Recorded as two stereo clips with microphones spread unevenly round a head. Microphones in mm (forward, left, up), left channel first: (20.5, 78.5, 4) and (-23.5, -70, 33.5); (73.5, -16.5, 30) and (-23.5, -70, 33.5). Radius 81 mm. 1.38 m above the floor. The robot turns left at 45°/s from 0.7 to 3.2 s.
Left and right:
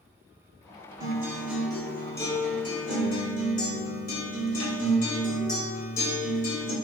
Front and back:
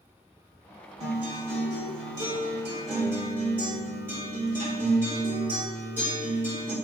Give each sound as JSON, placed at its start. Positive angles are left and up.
{"t": 1.0, "sound": "a guitar", "azimuth_deg": -155, "distance_m": 1.3}